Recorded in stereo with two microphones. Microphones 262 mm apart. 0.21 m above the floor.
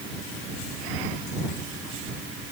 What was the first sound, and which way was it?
Only background noise.